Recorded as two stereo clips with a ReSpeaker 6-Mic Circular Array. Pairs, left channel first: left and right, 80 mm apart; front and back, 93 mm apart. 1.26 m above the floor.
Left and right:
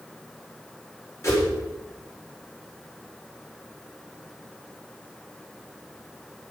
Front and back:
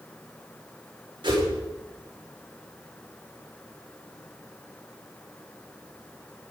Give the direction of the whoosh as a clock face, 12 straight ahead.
7 o'clock.